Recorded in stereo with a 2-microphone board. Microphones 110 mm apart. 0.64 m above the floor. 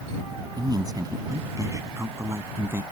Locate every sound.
0.6 s a man speaking: 35° right (ahead or behind); by 2.8 s 20° right (ahead or behind)